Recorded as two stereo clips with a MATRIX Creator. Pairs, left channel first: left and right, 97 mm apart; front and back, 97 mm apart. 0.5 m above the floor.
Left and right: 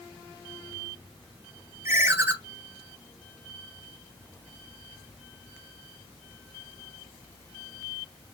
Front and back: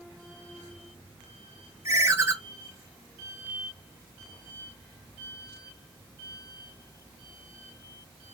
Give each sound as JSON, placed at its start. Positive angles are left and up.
{"t": 1.9, "sound": "a ringtone", "azimuth_deg": -140, "distance_m": 0.8}